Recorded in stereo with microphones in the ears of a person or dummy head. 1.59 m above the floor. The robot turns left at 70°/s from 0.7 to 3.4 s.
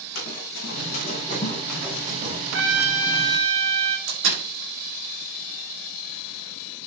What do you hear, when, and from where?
0.1 s running footsteps: 65° left (ahead or behind), 6.5 m; by 2.4 s 45° right (ahead or behind), 4 m
2.5 s a trumpet: 90° right, 1.9 m; by 4.0 s 155° right, 1.9 m
4.1 s a door slam: 60° right (ahead or behind), 6.5 m